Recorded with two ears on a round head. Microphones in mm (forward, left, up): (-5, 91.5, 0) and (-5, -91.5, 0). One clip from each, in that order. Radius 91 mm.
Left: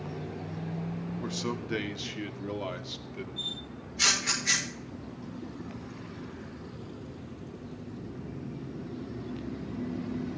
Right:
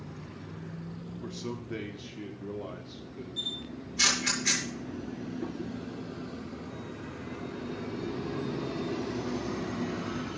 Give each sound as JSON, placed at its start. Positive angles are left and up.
{"t": 1.2, "sound": "a man speaking", "side_deg": 30, "distance_m": 1.5}
{"t": 3.4, "sound": "a camera shutter", "side_deg": -35, "distance_m": 8.5}